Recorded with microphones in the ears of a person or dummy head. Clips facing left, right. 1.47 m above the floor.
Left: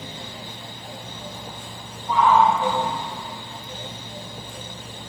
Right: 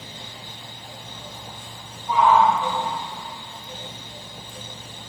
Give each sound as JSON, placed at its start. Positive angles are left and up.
{"t": 2.1, "sound": "a shout", "side_deg": -10, "distance_m": 2.5}